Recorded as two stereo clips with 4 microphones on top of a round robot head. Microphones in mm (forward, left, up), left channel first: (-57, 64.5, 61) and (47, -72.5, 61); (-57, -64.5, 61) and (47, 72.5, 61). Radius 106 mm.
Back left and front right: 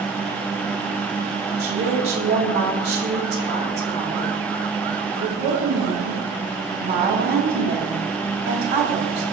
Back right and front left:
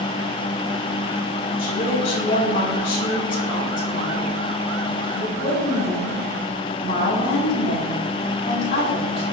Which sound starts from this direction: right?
A woman speaking, at 1.6 s.